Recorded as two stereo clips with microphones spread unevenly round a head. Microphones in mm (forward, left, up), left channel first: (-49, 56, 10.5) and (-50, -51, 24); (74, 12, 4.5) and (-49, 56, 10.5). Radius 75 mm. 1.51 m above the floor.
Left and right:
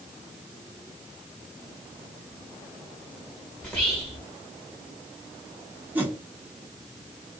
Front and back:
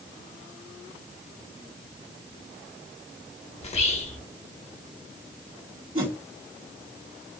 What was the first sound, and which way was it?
Whispering, 15° left.